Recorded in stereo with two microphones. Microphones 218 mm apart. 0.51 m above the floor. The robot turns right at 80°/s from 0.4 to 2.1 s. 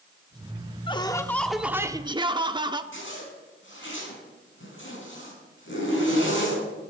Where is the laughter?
130° left, 0.8 m; by 2.8 s 135° right, 0.8 m.